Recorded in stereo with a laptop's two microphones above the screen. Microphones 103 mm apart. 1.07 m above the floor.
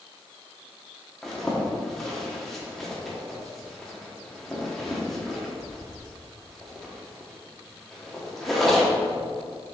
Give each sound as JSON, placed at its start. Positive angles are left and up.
{"t": 1.2, "sound": "a zipper", "side_deg": 5, "distance_m": 1.1}